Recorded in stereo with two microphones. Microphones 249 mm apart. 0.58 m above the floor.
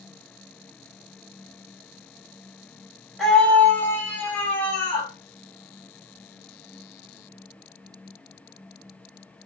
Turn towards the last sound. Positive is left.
turn(degrees=5)  # may be behind; listen again after turning